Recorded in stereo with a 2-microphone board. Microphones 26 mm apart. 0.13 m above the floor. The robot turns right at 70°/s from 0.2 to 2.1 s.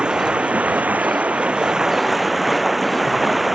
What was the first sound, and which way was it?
Running water, 140° right.